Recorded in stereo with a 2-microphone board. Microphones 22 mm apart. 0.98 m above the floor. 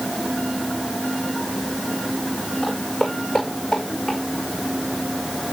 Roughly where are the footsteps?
Centre.